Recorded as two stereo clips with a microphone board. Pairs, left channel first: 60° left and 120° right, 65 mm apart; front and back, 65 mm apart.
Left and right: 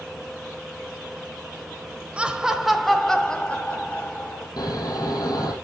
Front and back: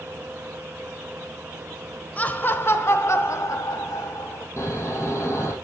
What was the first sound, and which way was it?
Laughter, 55° right.